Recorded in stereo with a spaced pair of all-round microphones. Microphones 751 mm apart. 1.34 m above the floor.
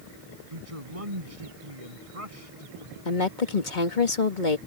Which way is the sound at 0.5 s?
45° right (ahead or behind).